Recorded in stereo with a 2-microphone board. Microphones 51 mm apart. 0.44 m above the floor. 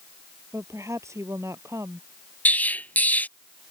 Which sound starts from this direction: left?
An explosion, at 2.5 s.